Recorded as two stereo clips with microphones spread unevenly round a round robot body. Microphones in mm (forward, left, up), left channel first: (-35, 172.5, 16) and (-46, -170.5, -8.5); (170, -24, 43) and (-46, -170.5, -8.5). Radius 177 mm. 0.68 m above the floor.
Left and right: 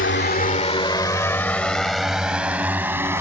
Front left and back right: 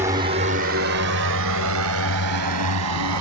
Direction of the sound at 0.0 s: 140° left.